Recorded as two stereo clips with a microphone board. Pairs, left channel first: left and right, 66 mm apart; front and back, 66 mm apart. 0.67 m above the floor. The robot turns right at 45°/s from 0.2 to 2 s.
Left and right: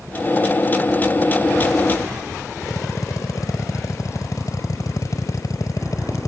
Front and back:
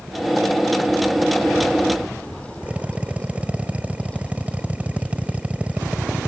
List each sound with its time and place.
2.6 s a drill: 110° left